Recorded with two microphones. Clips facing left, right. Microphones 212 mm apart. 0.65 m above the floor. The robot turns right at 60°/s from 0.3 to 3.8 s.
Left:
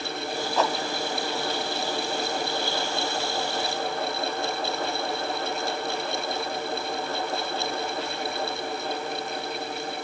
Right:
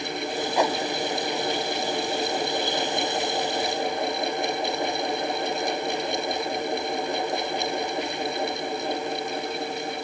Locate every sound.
0.6 s a whoosh: 10° right (ahead or behind); by 0.8 s 25° right (ahead or behind)